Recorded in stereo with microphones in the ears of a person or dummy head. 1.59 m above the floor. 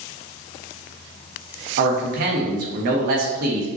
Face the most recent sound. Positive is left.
turn(degrees=-55)  # may be behind; listen again after turning